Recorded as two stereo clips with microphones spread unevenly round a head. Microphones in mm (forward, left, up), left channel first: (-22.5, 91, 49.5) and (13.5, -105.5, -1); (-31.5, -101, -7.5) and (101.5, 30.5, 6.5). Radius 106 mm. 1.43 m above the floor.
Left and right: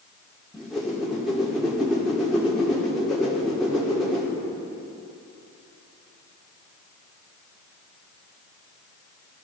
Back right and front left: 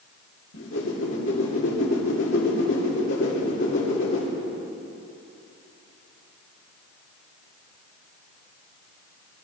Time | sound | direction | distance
0.5 | a whoosh | 175° right | 2.5 m